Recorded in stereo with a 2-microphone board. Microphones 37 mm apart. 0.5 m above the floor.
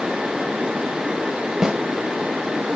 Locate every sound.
1.6 s a snare drum: 20° right (ahead or behind), 1.4 m